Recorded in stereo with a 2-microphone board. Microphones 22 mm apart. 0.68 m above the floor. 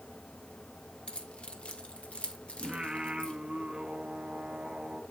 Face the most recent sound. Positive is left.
turn(degrees=-35)  # may be behind; listen again after turning